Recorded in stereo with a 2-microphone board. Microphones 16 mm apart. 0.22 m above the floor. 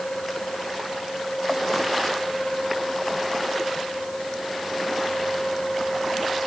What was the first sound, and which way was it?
Only background noise.